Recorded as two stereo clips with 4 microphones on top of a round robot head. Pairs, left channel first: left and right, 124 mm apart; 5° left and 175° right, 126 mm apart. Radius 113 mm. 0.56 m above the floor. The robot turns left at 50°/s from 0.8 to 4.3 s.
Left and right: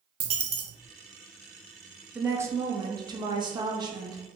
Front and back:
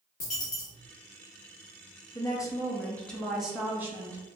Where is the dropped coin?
40° right, 0.5 m.